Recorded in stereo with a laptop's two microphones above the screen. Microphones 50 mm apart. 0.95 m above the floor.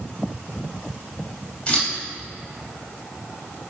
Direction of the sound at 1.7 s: 25° left (ahead or behind).